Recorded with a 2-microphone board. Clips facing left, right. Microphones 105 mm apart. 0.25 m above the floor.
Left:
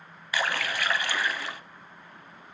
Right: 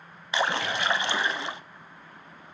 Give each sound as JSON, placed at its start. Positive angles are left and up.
{"t": 0.3, "sound": "a splash", "side_deg": -20, "distance_m": 0.6}